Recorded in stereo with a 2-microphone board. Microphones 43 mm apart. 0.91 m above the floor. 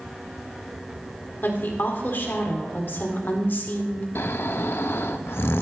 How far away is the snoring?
About 0.7 m.